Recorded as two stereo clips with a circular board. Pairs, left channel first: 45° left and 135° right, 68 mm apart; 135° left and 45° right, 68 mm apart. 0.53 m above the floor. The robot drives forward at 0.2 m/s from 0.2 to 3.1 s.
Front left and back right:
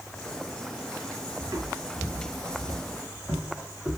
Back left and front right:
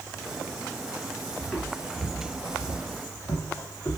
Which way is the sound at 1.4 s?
150° right.